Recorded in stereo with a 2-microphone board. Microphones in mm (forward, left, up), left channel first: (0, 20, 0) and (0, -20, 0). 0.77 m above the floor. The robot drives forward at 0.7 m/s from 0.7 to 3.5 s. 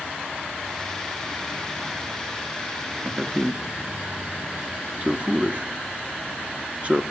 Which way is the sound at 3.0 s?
25° right (ahead or behind).